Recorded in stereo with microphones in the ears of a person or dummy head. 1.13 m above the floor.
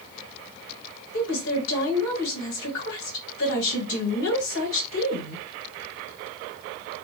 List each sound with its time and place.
1.1 s a woman speaking: 65° left (ahead or behind), 1.5 m